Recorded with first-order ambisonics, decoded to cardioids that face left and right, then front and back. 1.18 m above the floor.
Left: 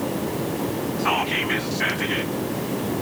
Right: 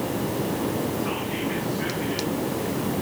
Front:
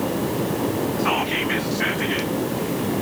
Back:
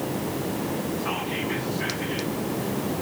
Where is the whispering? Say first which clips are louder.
Left 6 dB, front 7 dB; 55° left, 1.1 m.